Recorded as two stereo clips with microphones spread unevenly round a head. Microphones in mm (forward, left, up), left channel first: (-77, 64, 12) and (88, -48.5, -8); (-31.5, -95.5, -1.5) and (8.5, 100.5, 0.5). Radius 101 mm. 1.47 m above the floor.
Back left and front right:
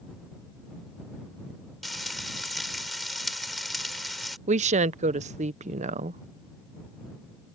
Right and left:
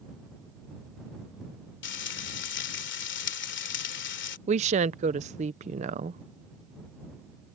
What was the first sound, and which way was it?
Frying, 125° right.